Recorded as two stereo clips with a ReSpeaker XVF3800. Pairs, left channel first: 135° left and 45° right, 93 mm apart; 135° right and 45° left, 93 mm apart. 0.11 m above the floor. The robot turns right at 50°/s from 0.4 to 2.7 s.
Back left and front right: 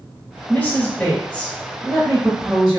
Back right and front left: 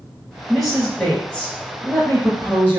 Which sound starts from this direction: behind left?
A woman speaking, at 0.5 s.